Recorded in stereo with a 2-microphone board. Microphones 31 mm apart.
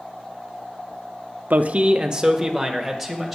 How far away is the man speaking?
About 0.5 m.